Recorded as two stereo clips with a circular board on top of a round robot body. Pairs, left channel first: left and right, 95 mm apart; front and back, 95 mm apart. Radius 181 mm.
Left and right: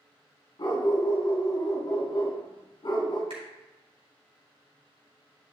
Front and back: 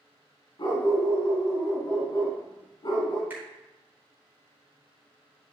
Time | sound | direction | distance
0.6 | a dog barking | 45° left | 2.5 m
3.3 | a finger snap | 110° right | 4 m